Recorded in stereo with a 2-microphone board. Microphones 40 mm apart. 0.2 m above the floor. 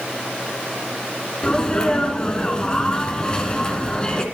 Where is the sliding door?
No sliding door in this recording.